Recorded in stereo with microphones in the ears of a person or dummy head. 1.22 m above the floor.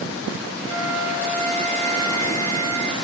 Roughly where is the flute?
Left.